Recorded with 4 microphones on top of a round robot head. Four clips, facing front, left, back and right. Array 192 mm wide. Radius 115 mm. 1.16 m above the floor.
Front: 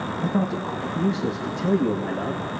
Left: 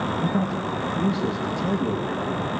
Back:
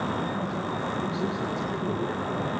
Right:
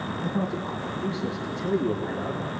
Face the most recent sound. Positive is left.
turn(degrees=10)